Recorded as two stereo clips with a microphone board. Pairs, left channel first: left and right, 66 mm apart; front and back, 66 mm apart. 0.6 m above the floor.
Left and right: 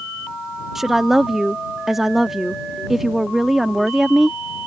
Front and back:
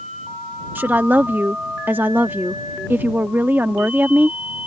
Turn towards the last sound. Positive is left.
turn(degrees=-170)